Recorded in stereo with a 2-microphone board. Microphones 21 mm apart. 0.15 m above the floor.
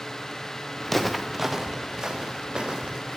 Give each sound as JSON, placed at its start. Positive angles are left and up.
{"t": 0.8, "sound": "footsteps", "side_deg": 15, "distance_m": 1.3}